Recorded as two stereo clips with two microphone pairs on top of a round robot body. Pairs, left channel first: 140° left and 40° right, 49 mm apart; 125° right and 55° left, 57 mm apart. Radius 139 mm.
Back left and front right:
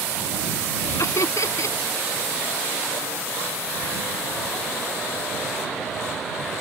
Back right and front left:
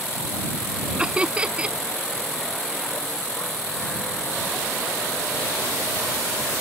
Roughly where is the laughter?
Behind left.